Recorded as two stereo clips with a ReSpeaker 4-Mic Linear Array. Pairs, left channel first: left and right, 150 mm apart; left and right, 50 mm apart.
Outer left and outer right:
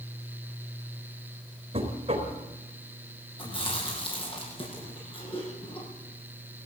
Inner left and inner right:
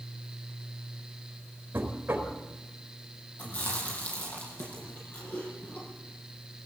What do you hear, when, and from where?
1.7 s knocking: 40° right (ahead or behind), 4 m
3.4 s chewing: 35° left (ahead or behind), 8.5 m